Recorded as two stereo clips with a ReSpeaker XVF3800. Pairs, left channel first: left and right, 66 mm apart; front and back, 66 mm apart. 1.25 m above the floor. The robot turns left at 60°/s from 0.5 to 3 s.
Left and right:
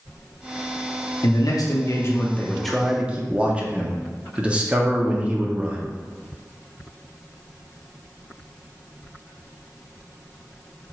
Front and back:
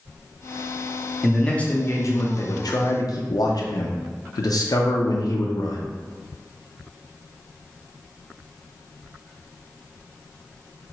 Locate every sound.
1.2 s a man speaking: 90° left, 0.7 m; by 5.8 s 15° right, 0.7 m